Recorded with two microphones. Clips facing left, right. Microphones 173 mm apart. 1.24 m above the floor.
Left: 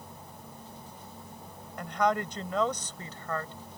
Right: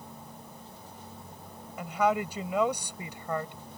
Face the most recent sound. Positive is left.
turn(degrees=-15)  # may be behind; listen again after turning